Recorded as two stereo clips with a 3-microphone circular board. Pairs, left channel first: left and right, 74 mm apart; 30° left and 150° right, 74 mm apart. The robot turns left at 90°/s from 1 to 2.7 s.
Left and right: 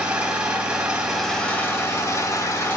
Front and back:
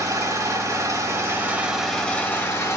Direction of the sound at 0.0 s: 155° right.